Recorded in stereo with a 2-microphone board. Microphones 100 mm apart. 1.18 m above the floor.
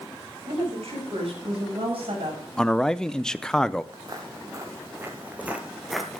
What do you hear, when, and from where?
0.5 s a woman speaking: 75° right (ahead or behind), 8 m; by 2.4 s 65° right (ahead or behind), 7.5 m
2.6 s a man speaking: 5° left (ahead or behind), 0.6 m
3.9 s footsteps: 40° right (ahead or behind), 1.7 m; by 6.2 s 5° left (ahead or behind), 1.2 m